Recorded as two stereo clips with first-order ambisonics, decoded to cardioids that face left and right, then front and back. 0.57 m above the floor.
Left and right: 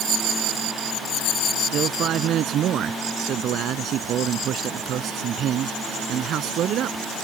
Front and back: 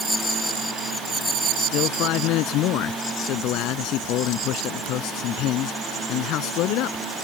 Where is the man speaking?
40° right.